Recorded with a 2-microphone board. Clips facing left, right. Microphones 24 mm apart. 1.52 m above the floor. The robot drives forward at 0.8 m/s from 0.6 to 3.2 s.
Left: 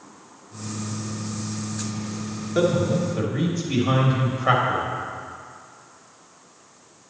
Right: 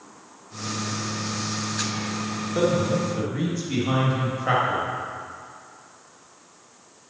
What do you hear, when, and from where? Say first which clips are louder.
2.5 s a man speaking: left 2 dB; 15° left (ahead or behind), 2 m